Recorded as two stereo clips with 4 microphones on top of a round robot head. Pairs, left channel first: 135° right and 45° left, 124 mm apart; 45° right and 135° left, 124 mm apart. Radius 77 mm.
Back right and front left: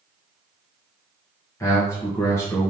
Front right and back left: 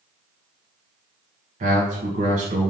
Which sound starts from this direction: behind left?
A man speaking, at 1.6 s.